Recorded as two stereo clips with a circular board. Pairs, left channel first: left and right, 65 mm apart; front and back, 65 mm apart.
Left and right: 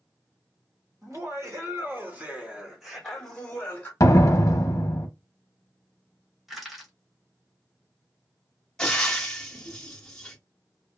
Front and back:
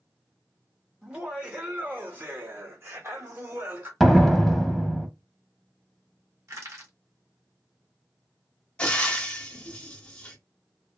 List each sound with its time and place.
1.0 s laughter: 110° right, 1.6 m; by 3.9 s 145° left, 1.4 m
4.0 s a door slam: 85° left, 0.6 m
6.5 s crushing: 175° right, 1.3 m
8.8 s frying: 30° left, 0.9 m